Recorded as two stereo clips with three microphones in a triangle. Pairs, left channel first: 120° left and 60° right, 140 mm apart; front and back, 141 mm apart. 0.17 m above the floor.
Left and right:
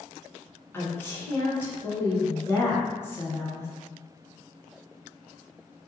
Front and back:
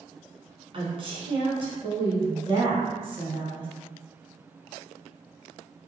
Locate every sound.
0.7 s a woman speaking: 175° right, 1.5 m